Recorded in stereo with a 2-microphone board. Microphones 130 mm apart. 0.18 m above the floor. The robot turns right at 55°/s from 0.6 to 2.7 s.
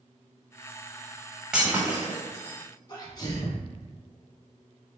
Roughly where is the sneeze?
Left.